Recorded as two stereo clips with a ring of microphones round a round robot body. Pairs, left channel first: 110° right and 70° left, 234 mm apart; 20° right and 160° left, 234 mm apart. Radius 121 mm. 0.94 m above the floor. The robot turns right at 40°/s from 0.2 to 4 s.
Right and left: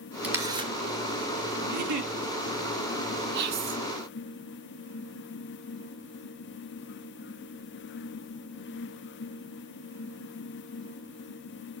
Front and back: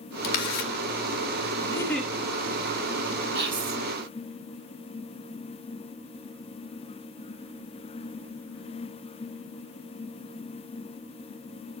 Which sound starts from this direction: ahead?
A camera shutter, at 0.2 s.